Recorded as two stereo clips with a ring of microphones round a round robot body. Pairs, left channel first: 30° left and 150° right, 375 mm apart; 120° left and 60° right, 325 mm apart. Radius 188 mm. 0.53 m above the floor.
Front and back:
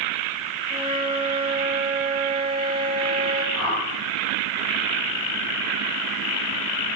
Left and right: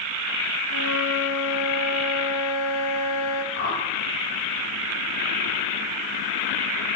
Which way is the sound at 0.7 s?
135° left.